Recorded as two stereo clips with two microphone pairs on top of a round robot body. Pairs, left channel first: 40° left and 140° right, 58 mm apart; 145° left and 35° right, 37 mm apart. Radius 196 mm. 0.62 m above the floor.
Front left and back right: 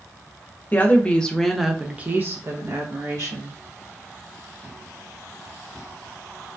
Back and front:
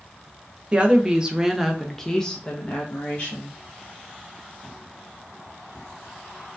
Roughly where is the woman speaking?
Ahead.